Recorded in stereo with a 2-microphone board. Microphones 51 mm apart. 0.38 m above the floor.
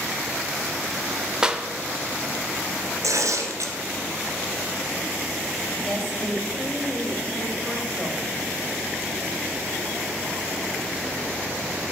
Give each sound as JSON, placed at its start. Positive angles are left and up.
{"t": 1.4, "sound": "a clap", "side_deg": -15, "distance_m": 0.7}
{"t": 3.0, "sound": "tearing paper", "side_deg": -90, "distance_m": 1.7}
{"t": 5.8, "sound": "a woman speaking", "side_deg": 10, "distance_m": 1.6}